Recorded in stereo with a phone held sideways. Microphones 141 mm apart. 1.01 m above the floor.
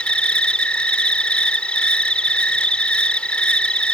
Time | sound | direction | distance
0.0 | an insect | 5° left (ahead or behind) | ?